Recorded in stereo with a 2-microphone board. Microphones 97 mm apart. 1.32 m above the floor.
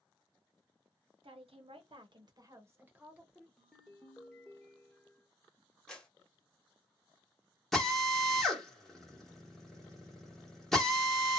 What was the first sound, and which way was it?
A woman speaking, 75° right (ahead or behind).